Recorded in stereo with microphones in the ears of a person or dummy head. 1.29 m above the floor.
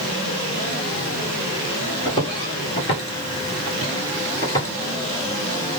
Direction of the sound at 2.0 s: 25° left (ahead or behind).